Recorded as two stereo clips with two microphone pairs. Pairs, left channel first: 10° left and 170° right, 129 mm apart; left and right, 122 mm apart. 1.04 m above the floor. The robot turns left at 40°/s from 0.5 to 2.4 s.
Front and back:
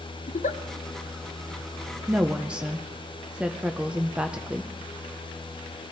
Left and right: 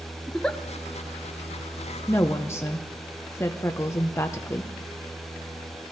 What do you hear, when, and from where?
0.3 s a giggle: 5° left, 0.5 m
2.1 s a woman speaking: 135° left, 0.5 m; by 4.7 s 125° left, 0.5 m